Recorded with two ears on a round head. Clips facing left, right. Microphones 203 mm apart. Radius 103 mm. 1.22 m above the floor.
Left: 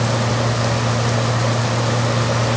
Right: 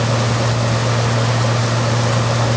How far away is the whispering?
I don't hear whispering.